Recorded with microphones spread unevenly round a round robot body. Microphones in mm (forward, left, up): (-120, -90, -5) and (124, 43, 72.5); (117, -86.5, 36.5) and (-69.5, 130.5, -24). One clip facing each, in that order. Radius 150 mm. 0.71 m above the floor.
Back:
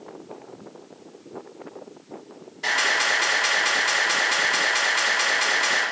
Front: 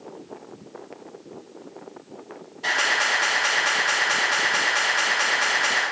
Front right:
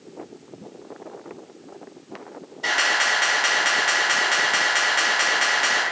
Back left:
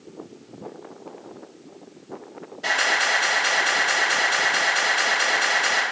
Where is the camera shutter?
135° right, 1.6 m.